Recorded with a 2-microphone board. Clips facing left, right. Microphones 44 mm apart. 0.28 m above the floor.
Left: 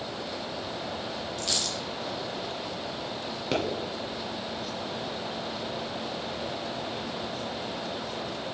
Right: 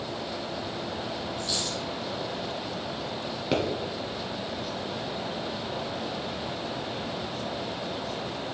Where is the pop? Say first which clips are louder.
Right 2 dB; 5° right (ahead or behind), 1.9 m.